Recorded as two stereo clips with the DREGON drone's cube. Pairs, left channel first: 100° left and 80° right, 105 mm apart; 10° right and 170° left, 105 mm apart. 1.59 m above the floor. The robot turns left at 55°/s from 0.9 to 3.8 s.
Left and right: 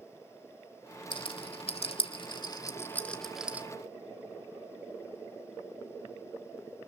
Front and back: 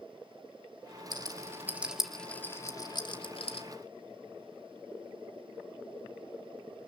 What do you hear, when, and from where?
1.1 s a rattle: 130° left, 1.9 m; by 3.7 s 10° right, 1.9 m